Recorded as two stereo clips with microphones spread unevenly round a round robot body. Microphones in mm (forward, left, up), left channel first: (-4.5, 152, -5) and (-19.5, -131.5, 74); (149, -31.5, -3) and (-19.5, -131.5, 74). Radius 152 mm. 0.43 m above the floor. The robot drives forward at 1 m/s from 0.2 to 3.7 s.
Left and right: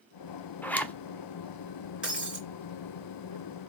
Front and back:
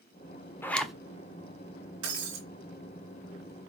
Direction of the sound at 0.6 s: 35° left.